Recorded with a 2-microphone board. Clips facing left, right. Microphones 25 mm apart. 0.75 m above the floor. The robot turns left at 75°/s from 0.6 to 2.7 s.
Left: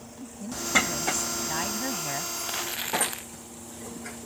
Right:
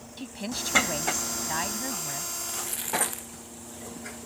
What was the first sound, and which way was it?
A woman speaking, 100° right.